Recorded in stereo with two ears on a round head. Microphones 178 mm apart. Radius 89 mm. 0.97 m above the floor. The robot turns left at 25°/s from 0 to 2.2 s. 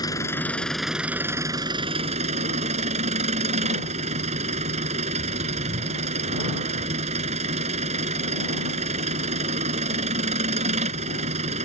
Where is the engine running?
20° left; by 11.7 s 35° right.